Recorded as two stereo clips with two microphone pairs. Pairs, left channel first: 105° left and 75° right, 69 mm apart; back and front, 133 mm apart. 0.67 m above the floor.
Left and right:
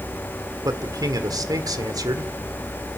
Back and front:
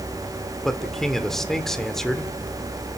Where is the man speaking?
90° right, 1.7 m.